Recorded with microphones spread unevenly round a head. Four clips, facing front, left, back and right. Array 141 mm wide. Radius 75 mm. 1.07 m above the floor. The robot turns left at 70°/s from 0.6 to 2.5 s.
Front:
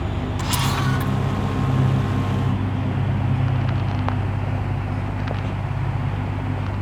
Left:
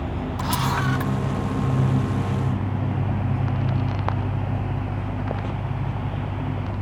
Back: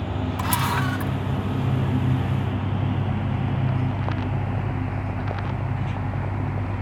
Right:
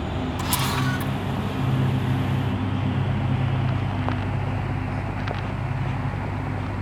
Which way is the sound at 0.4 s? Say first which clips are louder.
Left 3 dB, even; 135° left.